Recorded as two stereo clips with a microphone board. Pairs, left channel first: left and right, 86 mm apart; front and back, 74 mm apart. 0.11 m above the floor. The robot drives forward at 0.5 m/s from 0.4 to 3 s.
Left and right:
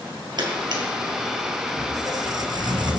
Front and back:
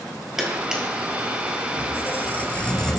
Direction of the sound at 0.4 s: 95° right.